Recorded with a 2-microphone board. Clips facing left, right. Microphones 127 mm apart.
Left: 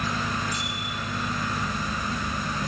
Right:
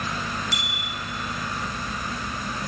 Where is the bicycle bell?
85° right, 7.5 m.